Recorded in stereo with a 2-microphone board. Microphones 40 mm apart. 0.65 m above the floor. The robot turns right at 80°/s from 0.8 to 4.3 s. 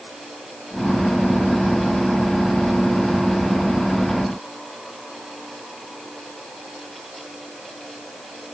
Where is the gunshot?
I don't hear a gunshot.